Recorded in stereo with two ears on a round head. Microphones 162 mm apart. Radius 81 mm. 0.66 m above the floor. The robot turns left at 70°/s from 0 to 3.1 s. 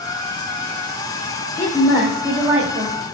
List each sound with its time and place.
1.6 s a woman speaking: 30° left, 1.4 m; by 3.0 s 75° right, 1.4 m